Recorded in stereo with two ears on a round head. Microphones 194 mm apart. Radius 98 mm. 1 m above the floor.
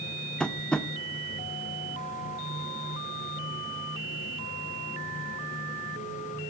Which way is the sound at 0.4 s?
5° left (ahead or behind).